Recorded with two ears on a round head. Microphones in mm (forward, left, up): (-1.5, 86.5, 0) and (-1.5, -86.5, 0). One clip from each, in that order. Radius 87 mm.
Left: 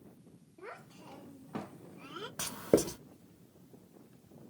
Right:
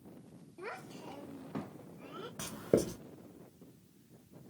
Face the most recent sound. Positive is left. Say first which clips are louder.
# left 3 dB
turn(degrees=35)  # may be behind; listen again after turning